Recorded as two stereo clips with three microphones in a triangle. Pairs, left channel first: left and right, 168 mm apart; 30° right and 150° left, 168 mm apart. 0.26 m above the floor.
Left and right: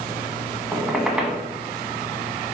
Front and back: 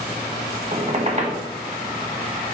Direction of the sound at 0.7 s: 175° right.